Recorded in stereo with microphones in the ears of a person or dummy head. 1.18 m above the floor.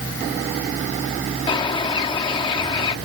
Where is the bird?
30° left (ahead or behind).